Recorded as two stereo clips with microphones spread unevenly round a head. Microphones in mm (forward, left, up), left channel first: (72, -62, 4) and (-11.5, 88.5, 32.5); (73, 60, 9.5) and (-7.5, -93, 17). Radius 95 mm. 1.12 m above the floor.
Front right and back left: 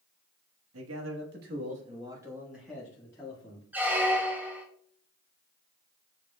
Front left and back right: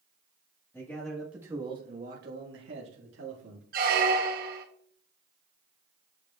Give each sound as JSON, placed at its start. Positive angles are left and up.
{"t": 0.7, "sound": "a man speaking", "azimuth_deg": 140, "distance_m": 1.5}
{"t": 3.7, "sound": "a squeak", "azimuth_deg": -160, "distance_m": 0.8}